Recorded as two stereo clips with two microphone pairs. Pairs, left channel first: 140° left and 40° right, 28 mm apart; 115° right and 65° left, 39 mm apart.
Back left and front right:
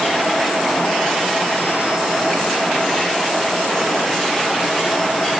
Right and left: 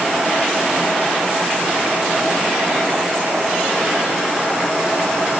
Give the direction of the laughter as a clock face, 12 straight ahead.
I don't hear laughter.